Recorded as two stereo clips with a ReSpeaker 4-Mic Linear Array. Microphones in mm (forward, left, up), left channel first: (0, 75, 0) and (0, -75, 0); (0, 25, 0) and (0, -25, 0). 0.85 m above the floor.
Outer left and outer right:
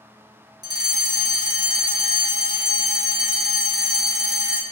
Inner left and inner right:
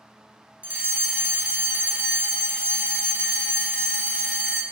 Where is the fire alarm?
25° right (ahead or behind), 1.5 m.